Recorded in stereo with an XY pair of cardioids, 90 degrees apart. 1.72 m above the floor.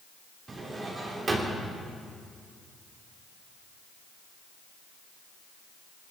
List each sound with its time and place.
0.5 s a drawer: 40° right, 3.5 m